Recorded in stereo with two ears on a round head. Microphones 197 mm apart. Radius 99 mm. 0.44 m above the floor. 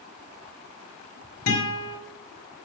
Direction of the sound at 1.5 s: 75° left (ahead or behind).